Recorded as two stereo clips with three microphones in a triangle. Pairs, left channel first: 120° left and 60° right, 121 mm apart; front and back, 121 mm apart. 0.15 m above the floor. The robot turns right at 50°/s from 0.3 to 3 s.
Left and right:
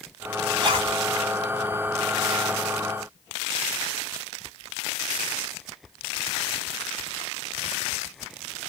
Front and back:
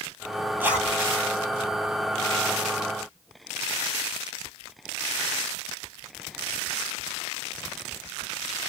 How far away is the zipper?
About 1.4 m.